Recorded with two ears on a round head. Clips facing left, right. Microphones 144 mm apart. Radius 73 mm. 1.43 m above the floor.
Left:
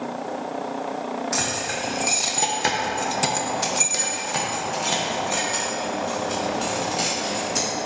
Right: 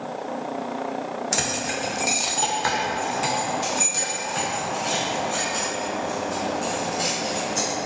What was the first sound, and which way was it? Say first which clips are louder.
Keys jangling: even; 35° right (ahead or behind).